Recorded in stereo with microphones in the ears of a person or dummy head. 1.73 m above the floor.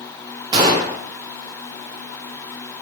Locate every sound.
0.5 s a gunshot: 25° right (ahead or behind), 0.7 m